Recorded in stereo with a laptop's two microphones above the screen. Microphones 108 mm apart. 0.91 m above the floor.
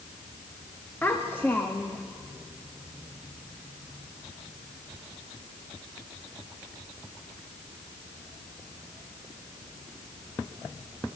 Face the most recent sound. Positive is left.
turn(degrees=20)  # may be behind; listen again after turning